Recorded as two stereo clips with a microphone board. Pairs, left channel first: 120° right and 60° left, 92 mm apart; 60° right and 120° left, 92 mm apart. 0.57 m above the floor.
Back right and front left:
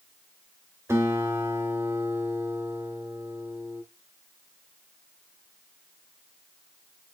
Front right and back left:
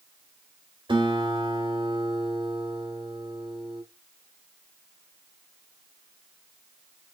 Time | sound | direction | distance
0.9 | a guitar | 115° left | 1.3 m